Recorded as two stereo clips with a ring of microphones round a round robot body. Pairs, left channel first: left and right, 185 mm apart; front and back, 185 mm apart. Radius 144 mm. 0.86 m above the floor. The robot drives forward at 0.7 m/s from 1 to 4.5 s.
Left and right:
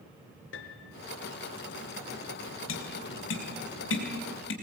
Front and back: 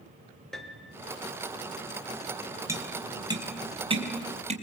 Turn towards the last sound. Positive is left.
turn(degrees=125)